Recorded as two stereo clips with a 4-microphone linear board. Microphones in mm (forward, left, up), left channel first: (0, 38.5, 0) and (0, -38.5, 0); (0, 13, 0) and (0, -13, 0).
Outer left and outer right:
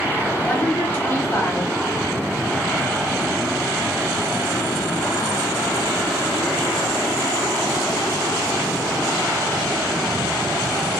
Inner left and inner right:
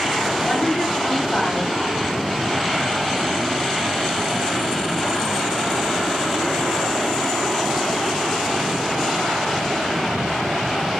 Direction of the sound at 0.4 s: 30° left (ahead or behind).